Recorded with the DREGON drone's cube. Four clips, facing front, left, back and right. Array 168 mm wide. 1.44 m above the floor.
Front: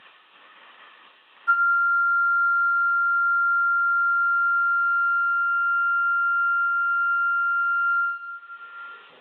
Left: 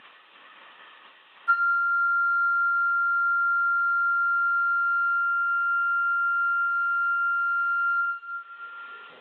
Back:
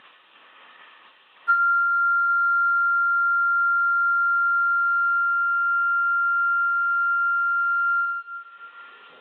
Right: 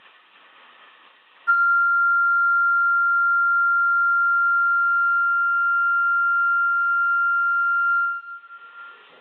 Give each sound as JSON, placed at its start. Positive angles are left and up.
{"t": 1.5, "sound": "a flute", "azimuth_deg": -80, "distance_m": 0.7}